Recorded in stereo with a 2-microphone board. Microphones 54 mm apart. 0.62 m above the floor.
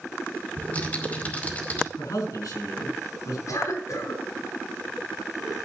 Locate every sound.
0.6 s typing on a keyboard: 30° left (ahead or behind), 2.5 m
2.0 s a man speaking: 85° left, 5.5 m
3.5 s a cough: 70° left (ahead or behind), 5.5 m